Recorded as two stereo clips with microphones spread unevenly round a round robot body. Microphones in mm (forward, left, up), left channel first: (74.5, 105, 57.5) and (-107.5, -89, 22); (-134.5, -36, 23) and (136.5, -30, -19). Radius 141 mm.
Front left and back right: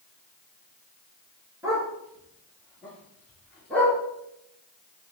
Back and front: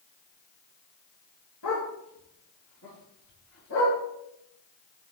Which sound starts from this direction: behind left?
A dog barking, at 1.6 s.